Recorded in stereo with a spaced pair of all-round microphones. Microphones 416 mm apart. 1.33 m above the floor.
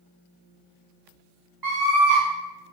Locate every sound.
1.6 s a scream: 60° right (ahead or behind), 2.5 m